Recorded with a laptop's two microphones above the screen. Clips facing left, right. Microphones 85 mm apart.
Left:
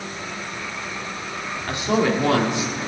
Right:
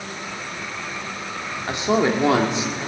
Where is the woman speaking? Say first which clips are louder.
Right 1 dB; 20° right (ahead or behind), 2 m.